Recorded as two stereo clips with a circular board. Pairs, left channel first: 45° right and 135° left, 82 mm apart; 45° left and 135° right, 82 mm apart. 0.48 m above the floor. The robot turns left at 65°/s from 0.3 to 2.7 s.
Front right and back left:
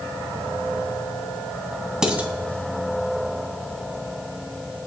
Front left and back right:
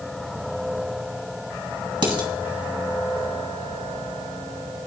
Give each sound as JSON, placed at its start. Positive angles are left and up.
{"t": 2.0, "sound": "dishes clattering", "azimuth_deg": -145, "distance_m": 2.5}